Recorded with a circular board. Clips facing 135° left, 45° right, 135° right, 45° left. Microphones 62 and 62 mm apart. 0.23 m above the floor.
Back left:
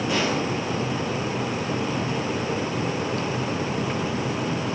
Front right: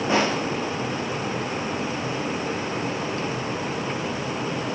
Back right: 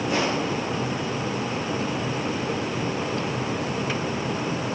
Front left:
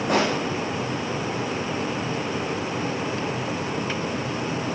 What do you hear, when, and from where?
0.1 s a pop: 15° left, 8.5 m